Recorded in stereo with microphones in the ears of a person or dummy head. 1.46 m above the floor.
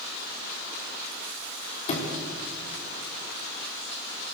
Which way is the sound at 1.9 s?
30° left (ahead or behind).